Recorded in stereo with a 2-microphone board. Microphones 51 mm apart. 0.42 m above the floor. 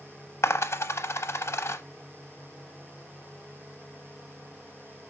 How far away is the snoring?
No snoring in this recording.